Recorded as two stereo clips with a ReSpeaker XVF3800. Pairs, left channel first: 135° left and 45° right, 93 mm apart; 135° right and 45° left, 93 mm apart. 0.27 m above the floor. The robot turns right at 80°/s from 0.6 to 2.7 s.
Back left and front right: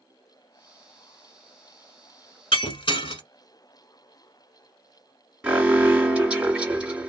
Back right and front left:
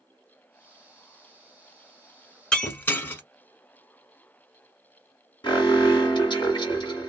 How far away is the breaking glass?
About 0.9 m.